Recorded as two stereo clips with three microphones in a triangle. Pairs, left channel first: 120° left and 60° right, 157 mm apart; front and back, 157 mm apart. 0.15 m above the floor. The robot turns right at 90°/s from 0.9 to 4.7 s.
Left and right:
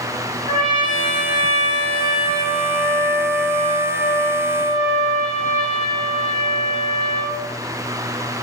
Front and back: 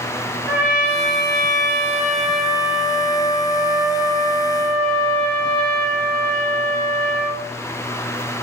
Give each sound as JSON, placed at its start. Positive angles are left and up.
{"t": 0.5, "sound": "a trumpet", "azimuth_deg": 105, "distance_m": 0.9}